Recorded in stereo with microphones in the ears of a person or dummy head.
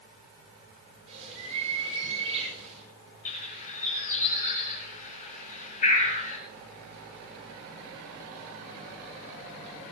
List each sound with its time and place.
1.1 s a bird: 35° right (ahead or behind), 6.5 m
3.2 s a bird: 40° left (ahead or behind), 3.5 m